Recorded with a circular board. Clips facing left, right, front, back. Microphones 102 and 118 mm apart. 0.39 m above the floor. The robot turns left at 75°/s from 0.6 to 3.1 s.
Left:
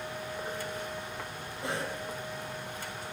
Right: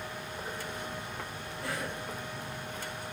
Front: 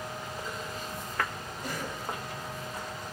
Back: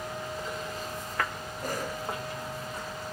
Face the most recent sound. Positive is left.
turn(degrees=45)